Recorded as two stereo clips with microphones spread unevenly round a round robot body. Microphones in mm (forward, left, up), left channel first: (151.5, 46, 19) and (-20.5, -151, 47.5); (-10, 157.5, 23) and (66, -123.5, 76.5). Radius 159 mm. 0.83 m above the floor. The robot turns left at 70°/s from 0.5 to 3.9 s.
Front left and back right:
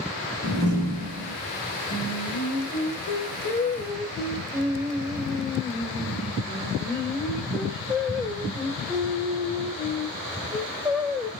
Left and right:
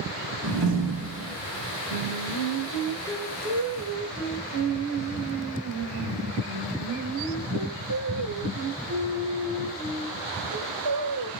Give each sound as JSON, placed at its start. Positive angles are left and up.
{"t": 0.4, "sound": "a door slam", "azimuth_deg": -85, "distance_m": 2.5}
{"t": 1.9, "sound": "singing", "azimuth_deg": 100, "distance_m": 1.9}